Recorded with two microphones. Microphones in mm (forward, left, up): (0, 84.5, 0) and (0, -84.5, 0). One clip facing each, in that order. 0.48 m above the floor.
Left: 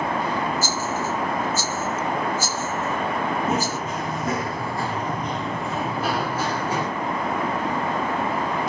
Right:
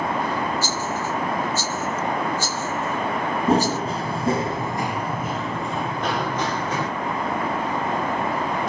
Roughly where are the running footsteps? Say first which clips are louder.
Right 5 dB; right.